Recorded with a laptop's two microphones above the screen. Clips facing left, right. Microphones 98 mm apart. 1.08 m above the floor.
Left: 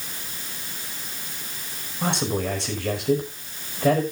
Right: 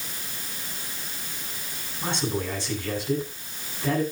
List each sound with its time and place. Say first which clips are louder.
2.0 s a man speaking: left 3 dB; 80° left, 5.5 m